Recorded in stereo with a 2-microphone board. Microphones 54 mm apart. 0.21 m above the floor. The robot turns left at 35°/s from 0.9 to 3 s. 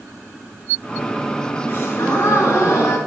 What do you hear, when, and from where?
1.7 s a gasp: 130° left, 3.5 m; by 3.0 s 85° left, 3.5 m